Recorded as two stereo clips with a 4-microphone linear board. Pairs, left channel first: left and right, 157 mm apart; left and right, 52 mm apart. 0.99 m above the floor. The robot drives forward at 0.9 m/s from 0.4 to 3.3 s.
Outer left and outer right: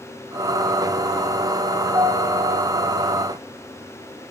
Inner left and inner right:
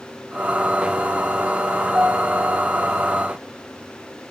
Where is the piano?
20° right (ahead or behind), 1.0 m; by 2.8 s 45° right (ahead or behind), 0.5 m.